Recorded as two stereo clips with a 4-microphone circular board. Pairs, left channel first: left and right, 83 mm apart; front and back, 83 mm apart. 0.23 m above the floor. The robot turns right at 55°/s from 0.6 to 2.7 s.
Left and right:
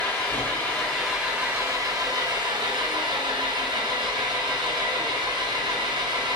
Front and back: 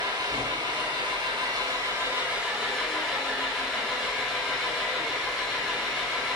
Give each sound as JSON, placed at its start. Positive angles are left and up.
{"t": 0.0, "sound": "an engine running", "azimuth_deg": 160, "distance_m": 3.5}